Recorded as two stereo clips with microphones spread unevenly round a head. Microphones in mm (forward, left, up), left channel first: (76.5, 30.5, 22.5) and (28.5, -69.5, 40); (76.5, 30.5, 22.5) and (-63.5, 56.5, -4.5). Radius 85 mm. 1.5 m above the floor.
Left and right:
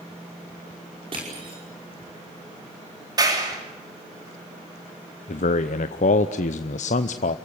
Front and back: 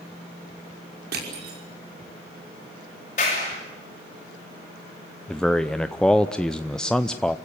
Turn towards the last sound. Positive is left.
turn(degrees=75)